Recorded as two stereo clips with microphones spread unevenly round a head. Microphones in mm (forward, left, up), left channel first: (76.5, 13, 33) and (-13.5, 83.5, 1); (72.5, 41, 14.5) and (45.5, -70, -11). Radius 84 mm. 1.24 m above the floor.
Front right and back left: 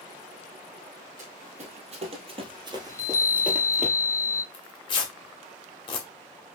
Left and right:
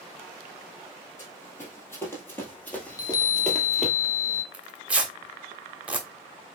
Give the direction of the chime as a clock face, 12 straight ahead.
11 o'clock.